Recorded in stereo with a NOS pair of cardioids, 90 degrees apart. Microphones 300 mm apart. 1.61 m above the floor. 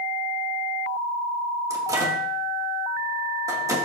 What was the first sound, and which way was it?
A microwave, 10° right.